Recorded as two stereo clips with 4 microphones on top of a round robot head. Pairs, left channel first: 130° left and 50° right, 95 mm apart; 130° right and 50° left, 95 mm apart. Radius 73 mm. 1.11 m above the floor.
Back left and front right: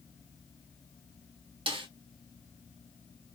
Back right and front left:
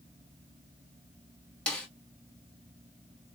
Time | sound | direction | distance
1.7 | a snare drum | 50° right | 1.0 m